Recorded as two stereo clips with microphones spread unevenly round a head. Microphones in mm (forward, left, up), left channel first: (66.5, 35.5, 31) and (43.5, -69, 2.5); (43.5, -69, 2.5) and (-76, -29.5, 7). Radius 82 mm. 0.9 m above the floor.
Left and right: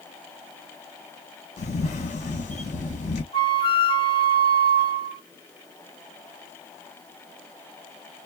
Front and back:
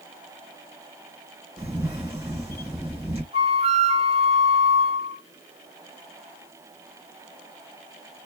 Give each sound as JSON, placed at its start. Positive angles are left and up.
{"t": 1.6, "sound": "a camera shutter", "azimuth_deg": 85, "distance_m": 1.4}
{"t": 3.3, "sound": "a flute", "azimuth_deg": 115, "distance_m": 0.8}